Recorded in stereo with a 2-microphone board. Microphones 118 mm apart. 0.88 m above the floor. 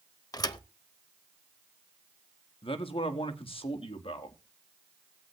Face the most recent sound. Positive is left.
turn(degrees=50)  # may be behind; listen again after turning